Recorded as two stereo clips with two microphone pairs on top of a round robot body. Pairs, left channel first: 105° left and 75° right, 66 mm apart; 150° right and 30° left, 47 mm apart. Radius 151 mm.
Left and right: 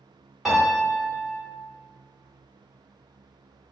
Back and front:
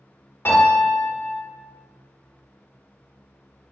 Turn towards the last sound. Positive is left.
turn(degrees=-155)